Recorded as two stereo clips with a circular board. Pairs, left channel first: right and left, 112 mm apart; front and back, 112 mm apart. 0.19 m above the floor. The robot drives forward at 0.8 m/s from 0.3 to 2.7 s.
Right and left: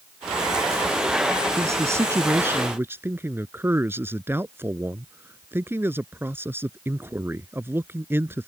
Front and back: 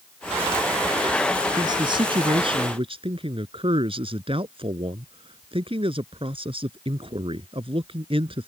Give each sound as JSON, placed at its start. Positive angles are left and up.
{"t": 1.6, "sound": "a man speaking", "azimuth_deg": 145}